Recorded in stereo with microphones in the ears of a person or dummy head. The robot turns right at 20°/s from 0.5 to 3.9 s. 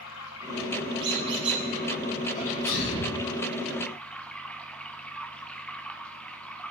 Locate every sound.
0.0 s running water: 110° left, 0.8 m; by 6.7 s 175° left, 0.8 m
1.0 s a squeak: 25° right (ahead or behind), 1.3 m; by 1.6 s 35° right (ahead or behind), 1.3 m
2.4 s a sneeze: 45° left (ahead or behind), 2.5 m; by 3.2 s 60° left (ahead or behind), 2.5 m